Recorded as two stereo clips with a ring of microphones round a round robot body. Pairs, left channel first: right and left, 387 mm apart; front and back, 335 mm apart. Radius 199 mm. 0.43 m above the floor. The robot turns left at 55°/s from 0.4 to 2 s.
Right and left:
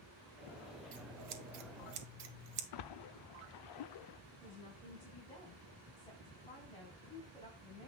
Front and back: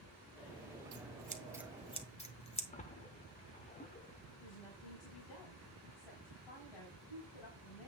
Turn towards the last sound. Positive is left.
turn(degrees=-15)